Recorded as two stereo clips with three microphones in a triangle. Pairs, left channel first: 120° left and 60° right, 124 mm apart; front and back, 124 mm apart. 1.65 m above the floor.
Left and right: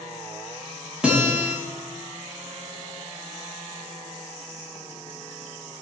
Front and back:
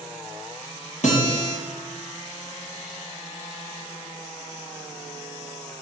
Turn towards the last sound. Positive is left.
turn(degrees=20)